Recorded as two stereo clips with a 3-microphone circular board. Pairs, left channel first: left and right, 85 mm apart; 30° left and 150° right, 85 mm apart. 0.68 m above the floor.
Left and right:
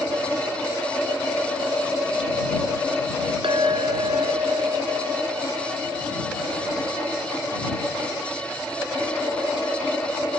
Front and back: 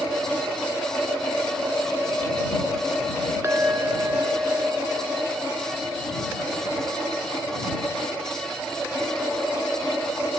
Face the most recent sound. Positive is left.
turn(degrees=-90)